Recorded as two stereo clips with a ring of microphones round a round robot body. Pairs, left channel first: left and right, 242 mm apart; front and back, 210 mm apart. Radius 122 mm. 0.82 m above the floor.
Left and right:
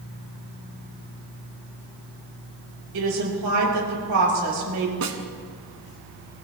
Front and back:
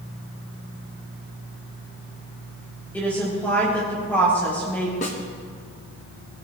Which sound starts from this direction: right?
A woman speaking, at 2.9 s.